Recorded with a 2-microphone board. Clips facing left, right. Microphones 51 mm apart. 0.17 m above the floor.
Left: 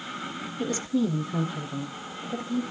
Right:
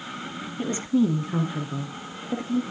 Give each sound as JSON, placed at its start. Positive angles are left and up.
{"t": 0.6, "sound": "a woman speaking", "side_deg": -20, "distance_m": 1.2}